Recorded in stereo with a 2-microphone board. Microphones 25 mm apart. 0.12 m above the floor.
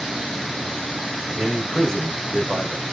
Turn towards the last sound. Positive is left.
turn(degrees=15)  # may be behind; listen again after turning